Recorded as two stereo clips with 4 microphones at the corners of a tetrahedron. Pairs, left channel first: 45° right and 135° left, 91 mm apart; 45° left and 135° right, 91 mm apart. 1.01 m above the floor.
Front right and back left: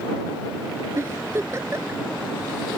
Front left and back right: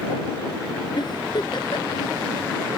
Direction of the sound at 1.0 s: 80° left.